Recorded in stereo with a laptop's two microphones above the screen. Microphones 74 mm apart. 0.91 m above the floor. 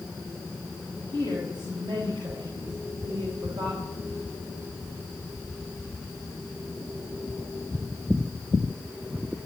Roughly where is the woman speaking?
Right.